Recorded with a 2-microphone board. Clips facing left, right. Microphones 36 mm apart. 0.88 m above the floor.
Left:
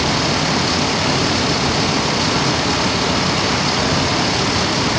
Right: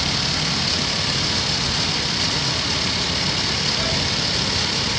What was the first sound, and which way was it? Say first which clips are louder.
Running water: left 6 dB; 70° left (ahead or behind).